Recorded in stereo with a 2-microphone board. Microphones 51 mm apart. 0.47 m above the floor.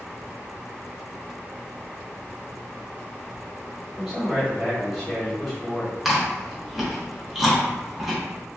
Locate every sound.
4.0 s a man speaking: centre (ahead or behind), 1.5 m
6.0 s chewing: 5° right (ahead or behind), 0.8 m